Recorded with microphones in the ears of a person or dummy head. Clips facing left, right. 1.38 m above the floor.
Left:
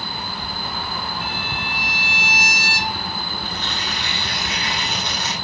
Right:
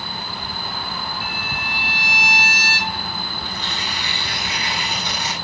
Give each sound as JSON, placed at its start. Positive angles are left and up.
{"t": 1.2, "sound": "a violin", "side_deg": 35, "distance_m": 2.0}
{"t": 3.5, "sound": "tearing paper", "side_deg": -5, "distance_m": 7.5}